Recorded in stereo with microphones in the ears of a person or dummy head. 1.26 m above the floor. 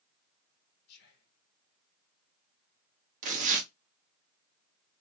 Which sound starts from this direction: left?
Whispering, at 0.9 s.